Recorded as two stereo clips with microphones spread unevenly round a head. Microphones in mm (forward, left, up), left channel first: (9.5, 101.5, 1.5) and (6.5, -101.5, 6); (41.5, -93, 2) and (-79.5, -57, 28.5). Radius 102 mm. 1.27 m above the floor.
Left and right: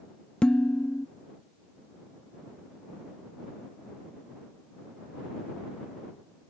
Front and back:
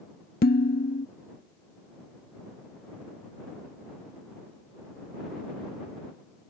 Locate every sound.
0.4 s dishes clattering: 5° left